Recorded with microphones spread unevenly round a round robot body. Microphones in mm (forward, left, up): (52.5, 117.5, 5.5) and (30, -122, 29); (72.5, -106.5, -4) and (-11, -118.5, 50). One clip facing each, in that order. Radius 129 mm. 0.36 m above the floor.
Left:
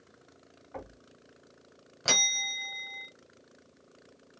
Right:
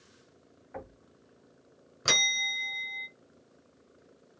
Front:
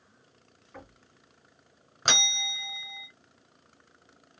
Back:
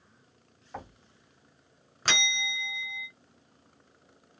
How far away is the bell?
About 1.2 m.